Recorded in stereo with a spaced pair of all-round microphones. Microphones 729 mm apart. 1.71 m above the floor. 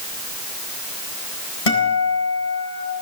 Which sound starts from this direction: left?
A guitar, at 1.7 s.